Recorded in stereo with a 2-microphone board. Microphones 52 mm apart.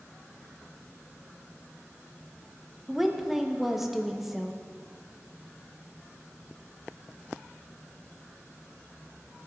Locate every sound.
2.9 s a woman speaking: 5° right (ahead or behind), 0.7 m